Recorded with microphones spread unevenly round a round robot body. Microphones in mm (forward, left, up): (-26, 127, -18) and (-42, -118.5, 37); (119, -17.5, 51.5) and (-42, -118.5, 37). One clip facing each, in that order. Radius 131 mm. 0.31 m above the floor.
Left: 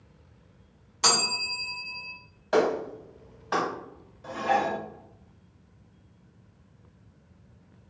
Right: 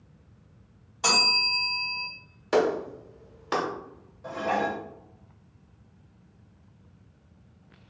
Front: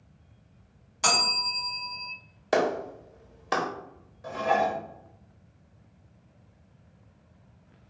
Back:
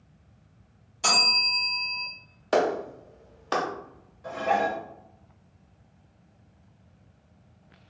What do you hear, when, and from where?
1.0 s a bell: 45° left, 2.0 m
2.5 s a clap: 40° right, 1.1 m
4.2 s dishes clattering: 40° left, 1.1 m